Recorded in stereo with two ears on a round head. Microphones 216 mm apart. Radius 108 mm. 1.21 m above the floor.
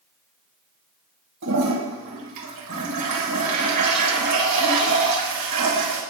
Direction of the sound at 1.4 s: 85° right.